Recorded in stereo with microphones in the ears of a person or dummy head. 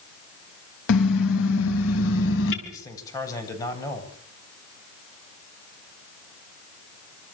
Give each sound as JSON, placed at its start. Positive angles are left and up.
{"t": 0.9, "sound": "a car horn", "side_deg": 80, "distance_m": 4.5}
{"t": 2.6, "sound": "a man speaking", "side_deg": 20, "distance_m": 8.0}